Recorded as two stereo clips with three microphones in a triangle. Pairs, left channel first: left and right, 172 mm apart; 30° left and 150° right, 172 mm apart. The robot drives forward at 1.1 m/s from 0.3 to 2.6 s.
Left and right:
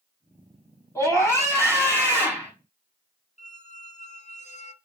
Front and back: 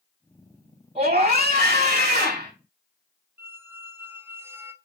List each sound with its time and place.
0.9 s a scream: 160° left, 2.5 m; by 2.5 s 170° left, 4.5 m
3.4 s a squeak: 135° left, 0.9 m